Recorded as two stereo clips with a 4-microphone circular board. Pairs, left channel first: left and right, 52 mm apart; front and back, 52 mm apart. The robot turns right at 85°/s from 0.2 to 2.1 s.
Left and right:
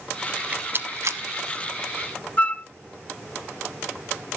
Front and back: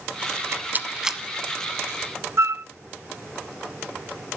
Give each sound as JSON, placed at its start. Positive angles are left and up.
{"t": 0.4, "sound": "a rattle", "azimuth_deg": -165, "distance_m": 0.8}
{"t": 2.4, "sound": "a flute", "azimuth_deg": 150, "distance_m": 0.7}